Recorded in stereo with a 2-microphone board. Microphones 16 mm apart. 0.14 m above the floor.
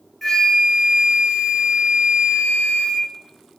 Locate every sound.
0.2 s a flute: 10° left (ahead or behind), 1.5 m